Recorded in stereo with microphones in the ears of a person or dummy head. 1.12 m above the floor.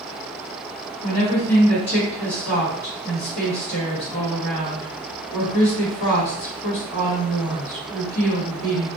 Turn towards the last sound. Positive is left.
turn(degrees=45)  # may be behind; listen again after turning